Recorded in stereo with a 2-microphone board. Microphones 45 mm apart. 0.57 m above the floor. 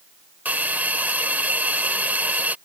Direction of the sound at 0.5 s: 40° right (ahead or behind).